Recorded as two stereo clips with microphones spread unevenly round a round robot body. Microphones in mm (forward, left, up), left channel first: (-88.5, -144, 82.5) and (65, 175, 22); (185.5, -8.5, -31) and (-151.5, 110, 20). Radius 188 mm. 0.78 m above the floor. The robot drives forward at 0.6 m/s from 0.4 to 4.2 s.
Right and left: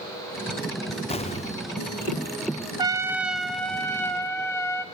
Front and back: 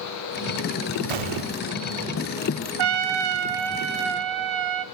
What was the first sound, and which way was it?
An explosion, 170° left.